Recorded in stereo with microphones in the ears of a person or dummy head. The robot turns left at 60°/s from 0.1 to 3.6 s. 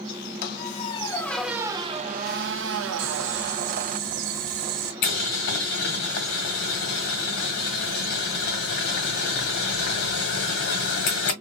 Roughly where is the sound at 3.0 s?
Right.